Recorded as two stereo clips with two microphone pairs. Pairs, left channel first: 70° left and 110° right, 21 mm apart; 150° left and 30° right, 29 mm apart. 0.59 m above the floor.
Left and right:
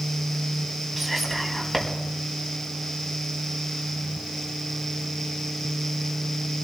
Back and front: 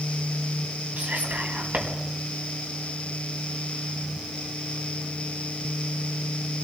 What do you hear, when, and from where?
1.0 s whispering: 20° right, 4.5 m